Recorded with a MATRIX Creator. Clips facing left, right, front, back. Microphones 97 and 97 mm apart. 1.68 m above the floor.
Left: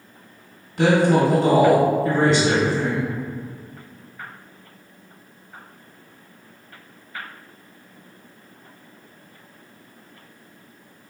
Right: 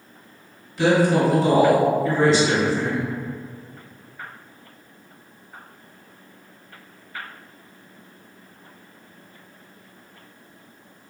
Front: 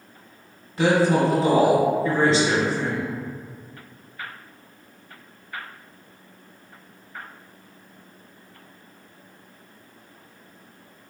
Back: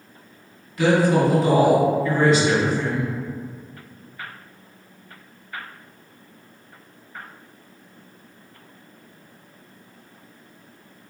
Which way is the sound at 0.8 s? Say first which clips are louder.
Left 1 dB, back 1 dB; 60° left.